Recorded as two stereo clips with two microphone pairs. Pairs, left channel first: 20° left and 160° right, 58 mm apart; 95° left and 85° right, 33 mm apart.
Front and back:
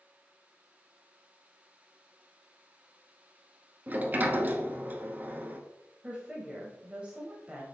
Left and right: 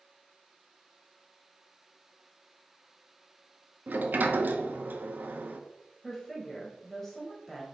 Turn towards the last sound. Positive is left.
turn(degrees=165)